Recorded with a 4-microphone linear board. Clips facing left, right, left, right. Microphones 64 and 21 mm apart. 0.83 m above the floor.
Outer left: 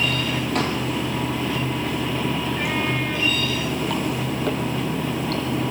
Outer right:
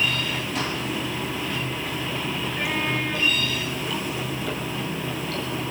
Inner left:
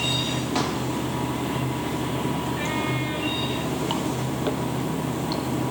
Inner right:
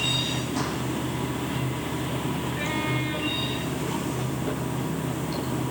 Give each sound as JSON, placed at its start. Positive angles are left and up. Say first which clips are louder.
{"t": 0.0, "sound": "running water", "louder": "outer left 3 dB, inner left 1 dB", "side_deg": 60, "distance_m": 3.0}